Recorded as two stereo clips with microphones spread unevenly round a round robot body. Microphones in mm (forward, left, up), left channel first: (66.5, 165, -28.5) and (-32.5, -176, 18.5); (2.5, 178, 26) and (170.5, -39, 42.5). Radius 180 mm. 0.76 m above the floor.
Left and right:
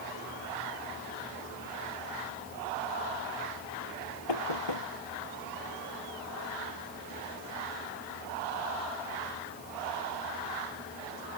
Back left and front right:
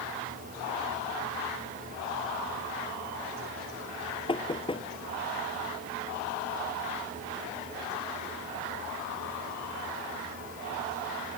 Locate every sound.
4.3 s knocking: 55° left